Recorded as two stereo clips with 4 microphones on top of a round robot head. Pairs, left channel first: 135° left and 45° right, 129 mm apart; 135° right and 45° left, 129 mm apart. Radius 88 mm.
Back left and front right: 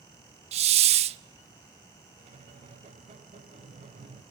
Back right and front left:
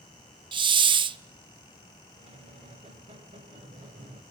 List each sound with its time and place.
0.5 s a hiss: 5° right, 0.5 m
2.2 s a squeak: 5° right, 1.7 m